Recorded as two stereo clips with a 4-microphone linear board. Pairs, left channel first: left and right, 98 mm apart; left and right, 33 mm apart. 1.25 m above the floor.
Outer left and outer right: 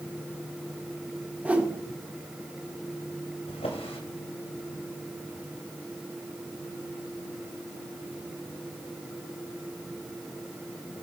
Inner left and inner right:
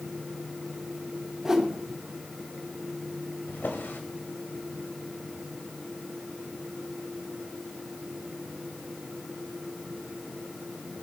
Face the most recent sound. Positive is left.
turn(degrees=75)  # may be behind; listen again after turning